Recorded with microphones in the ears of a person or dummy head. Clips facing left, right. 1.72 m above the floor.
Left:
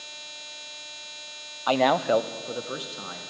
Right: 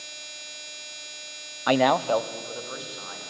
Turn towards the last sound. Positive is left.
turn(degrees=45)  # may be behind; listen again after turning